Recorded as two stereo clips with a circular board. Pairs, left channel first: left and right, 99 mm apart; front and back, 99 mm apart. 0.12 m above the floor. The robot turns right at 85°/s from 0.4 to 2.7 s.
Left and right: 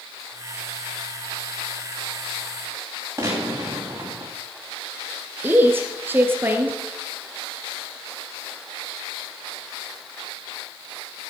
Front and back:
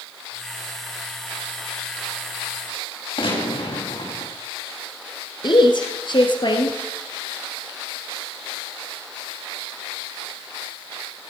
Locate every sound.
3.2 s a gunshot: 30° right, 5.5 m
5.4 s a woman speaking: 25° right, 2.0 m